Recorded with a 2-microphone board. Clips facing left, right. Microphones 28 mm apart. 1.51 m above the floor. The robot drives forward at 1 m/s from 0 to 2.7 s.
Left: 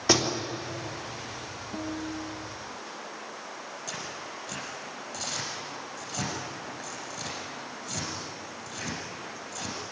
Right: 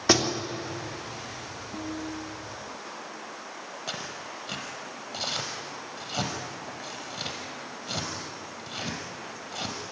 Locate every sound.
0.1 s a door slam: 10° right (ahead or behind), 3 m; by 0.4 s 15° right (ahead or behind), 2.5 m
1.7 s a guitar: 15° left (ahead or behind), 3 m; by 2.9 s 10° left (ahead or behind), 4 m
3.9 s tearing paper: 40° right (ahead or behind), 5.5 m